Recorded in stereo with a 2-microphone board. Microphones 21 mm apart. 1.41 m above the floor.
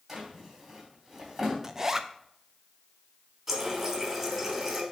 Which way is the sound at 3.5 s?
15° right (ahead or behind).